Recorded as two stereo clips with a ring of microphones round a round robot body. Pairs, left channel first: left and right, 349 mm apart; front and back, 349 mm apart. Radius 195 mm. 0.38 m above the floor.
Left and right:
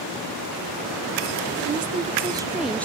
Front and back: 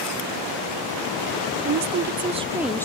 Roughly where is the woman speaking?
Behind right.